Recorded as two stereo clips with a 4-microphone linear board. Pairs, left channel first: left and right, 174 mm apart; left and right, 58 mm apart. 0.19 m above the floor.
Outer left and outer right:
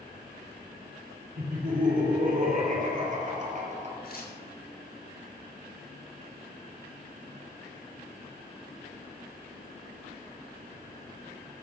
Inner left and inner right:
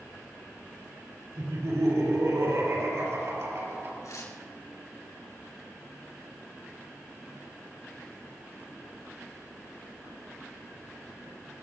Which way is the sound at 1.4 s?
65° right (ahead or behind).